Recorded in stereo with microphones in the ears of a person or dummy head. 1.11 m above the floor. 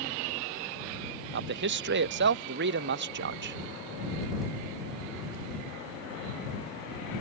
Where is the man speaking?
60° right (ahead or behind).